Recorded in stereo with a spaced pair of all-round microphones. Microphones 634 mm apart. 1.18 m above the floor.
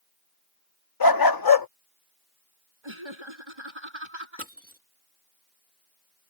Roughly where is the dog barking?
Left.